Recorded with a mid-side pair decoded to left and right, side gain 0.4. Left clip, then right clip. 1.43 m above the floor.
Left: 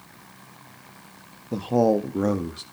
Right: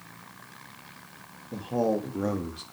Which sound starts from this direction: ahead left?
A man speaking, at 1.5 s.